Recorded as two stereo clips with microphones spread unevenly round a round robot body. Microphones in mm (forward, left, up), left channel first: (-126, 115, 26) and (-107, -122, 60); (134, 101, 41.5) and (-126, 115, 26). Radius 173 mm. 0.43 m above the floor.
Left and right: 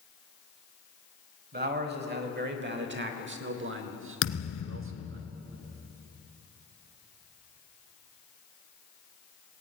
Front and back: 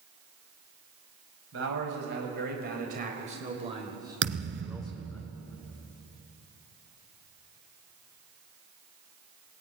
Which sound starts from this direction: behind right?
A man speaking, at 1.5 s.